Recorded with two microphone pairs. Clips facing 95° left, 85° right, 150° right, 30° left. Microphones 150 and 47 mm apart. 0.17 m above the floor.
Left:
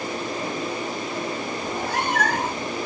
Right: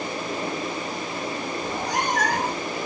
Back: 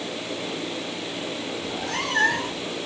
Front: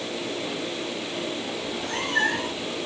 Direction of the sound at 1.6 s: 155° right.